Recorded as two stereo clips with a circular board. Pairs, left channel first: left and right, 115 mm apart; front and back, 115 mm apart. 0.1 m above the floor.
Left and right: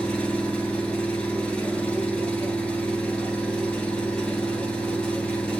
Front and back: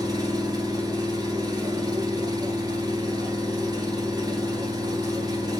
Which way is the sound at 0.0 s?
165° left.